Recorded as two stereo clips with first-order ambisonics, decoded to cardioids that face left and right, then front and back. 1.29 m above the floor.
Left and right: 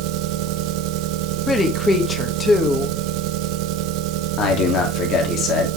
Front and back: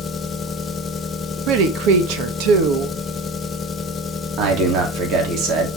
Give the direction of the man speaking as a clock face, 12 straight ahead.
7 o'clock.